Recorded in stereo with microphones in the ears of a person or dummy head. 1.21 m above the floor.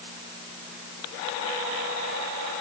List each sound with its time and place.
Only background noise.